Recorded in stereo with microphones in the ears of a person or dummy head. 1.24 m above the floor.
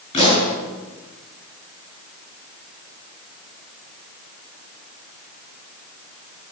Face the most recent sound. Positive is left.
turn(degrees=35)  # may be behind; listen again after turning